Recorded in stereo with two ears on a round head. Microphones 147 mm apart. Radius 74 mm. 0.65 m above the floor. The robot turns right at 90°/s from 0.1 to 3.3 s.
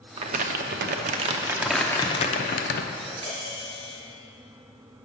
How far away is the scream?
No scream in this recording.